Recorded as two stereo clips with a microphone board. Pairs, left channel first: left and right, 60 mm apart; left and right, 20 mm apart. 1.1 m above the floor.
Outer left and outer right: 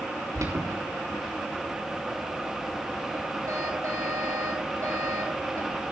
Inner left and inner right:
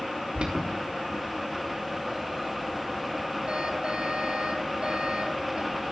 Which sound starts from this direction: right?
An alarm, at 0.3 s.